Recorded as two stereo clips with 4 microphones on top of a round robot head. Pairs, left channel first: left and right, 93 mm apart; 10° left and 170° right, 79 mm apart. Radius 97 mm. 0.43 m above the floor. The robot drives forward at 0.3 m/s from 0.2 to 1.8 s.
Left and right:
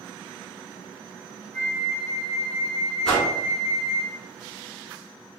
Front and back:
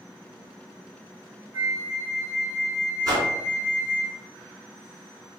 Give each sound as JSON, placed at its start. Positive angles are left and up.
{"t": 1.5, "sound": "a flute", "azimuth_deg": 125, "distance_m": 1.2}
{"t": 3.0, "sound": "a whoosh", "azimuth_deg": 170, "distance_m": 1.8}